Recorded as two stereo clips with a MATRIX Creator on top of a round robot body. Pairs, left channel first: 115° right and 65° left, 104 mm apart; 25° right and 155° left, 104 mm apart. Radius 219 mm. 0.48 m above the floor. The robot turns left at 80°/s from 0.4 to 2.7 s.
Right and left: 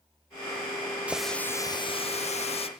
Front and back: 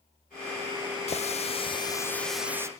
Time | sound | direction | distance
1.1 | a running tap | 10° right | 1.5 m